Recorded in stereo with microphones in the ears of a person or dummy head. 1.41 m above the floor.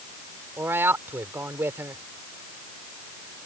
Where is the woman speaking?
10° right (ahead or behind).